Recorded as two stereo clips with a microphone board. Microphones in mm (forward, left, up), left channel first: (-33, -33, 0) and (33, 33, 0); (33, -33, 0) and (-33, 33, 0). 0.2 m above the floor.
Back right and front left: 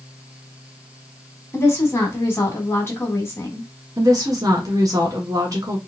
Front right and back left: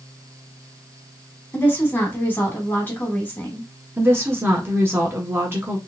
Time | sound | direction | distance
1.5 | a woman speaking | 95° right | 1.4 m
4.0 | a woman speaking | 80° left | 1.5 m